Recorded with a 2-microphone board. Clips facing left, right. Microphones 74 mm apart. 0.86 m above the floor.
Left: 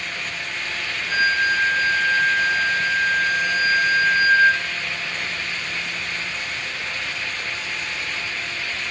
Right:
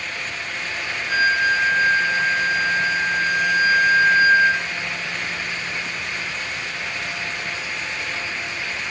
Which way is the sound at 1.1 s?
20° right (ahead or behind).